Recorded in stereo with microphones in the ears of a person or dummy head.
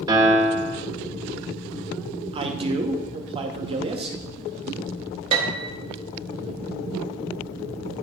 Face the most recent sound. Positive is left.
turn(degrees=-30)  # may be behind; listen again after turning